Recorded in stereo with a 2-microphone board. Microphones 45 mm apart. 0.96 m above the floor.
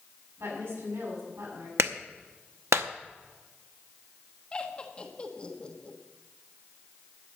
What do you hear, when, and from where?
0.4 s a woman speaking: 75° right (ahead or behind), 7 m
1.8 s a clap: 80° right, 0.8 m
4.5 s laughter: 25° left (ahead or behind), 1.4 m